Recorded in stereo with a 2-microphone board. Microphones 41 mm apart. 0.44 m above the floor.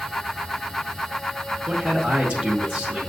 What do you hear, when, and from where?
1.7 s a man speaking: 25° right (ahead or behind), 0.8 m